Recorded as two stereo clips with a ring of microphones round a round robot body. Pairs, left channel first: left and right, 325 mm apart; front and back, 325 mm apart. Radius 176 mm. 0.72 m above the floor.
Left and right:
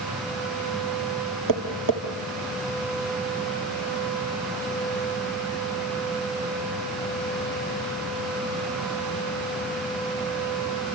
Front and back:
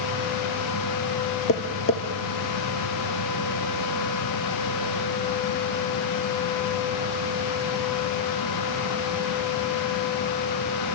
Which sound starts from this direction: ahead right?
Tapping, at 1.5 s.